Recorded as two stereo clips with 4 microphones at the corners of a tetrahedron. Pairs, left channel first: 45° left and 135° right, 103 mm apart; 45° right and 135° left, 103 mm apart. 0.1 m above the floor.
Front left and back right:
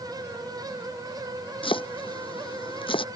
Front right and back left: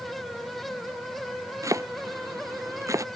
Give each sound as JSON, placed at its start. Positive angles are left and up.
{"t": 1.6, "sound": "chopping", "azimuth_deg": 75}